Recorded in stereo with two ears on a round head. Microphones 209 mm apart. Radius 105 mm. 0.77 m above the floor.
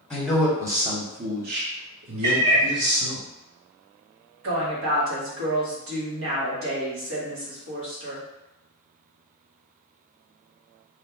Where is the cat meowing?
30° right (ahead or behind), 1.1 m.